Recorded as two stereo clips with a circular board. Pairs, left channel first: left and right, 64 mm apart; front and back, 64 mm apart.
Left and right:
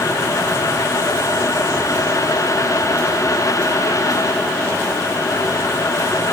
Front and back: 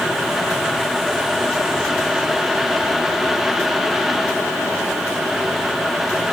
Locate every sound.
Only background noise.